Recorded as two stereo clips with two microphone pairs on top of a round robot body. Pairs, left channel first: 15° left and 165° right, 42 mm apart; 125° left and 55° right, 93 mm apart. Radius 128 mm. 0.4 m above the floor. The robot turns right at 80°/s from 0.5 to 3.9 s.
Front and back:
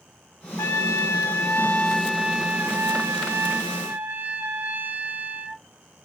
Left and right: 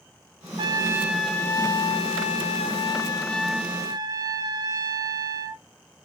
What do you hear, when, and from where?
0.6 s a trumpet: 15° right, 0.5 m; by 5.6 s 110° right, 0.5 m